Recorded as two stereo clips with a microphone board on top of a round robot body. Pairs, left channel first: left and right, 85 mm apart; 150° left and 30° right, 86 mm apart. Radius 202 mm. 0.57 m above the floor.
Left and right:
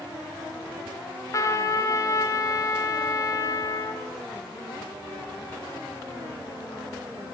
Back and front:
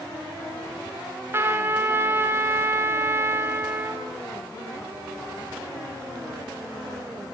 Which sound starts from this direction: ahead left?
A trumpet, at 1.3 s.